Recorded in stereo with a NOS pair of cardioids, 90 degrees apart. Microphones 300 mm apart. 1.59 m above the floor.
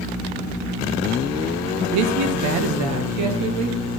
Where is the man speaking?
70° right, 1.1 m; by 3.8 s 80° right, 2.5 m.